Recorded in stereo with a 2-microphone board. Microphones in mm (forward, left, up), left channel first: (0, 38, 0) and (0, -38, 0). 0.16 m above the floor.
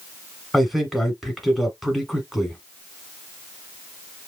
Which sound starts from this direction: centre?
A man speaking, at 0.5 s.